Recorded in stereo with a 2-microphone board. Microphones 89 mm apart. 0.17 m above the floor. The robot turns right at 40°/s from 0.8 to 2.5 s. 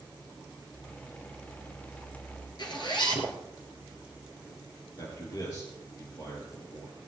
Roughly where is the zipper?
Left.